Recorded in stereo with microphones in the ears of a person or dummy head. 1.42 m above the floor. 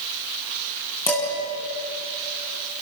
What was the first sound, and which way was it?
Dishes clattering, 15° left (ahead or behind).